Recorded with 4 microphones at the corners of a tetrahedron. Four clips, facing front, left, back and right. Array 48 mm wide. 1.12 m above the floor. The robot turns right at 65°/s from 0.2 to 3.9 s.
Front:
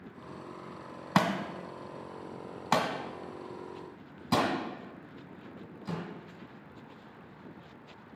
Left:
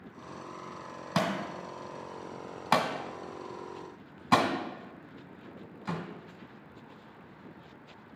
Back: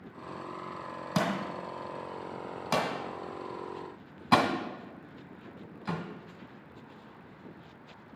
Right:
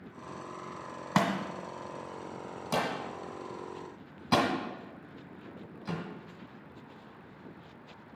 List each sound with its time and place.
1.1 s a thud: 30° right, 1.5 m; by 8.2 s 150° left, 1.5 m